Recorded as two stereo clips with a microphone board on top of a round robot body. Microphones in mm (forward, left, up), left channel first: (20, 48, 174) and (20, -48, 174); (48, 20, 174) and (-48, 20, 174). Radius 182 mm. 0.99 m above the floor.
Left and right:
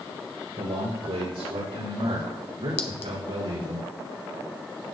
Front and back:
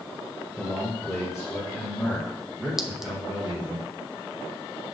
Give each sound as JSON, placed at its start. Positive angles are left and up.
{"t": 0.6, "sound": "a man speaking", "azimuth_deg": -85, "distance_m": 5.0}
{"t": 2.8, "sound": "a clink", "azimuth_deg": 95, "distance_m": 0.9}